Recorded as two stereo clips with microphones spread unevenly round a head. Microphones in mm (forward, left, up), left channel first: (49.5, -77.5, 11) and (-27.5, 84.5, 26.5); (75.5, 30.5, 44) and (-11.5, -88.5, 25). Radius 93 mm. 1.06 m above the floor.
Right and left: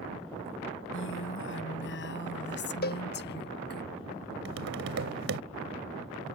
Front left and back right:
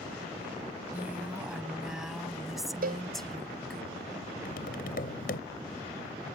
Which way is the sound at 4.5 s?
95° left.